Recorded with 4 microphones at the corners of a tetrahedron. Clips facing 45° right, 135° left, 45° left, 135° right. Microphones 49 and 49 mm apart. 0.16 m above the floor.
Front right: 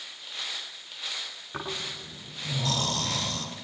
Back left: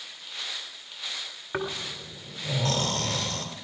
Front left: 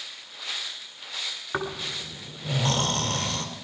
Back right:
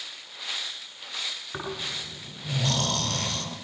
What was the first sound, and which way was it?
Snoring, 95° left.